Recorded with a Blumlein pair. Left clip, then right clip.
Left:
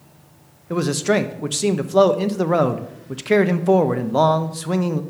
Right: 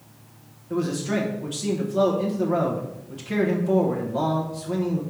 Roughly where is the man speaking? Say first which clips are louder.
Left 7 dB; ahead left.